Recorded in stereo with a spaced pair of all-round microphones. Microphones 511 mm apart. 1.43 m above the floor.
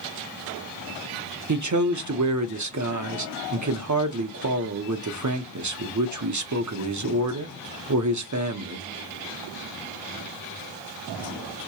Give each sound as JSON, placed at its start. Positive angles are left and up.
{"t": 1.5, "sound": "a man speaking", "side_deg": -35, "distance_m": 0.7}